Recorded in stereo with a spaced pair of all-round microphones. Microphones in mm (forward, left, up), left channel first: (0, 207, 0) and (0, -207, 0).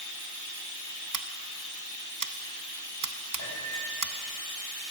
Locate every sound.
0.0 s running water: 45° left (ahead or behind), 1.7 m
1.1 s scissors: 50° right (ahead or behind), 0.6 m
3.4 s a piano: 40° left (ahead or behind), 4.5 m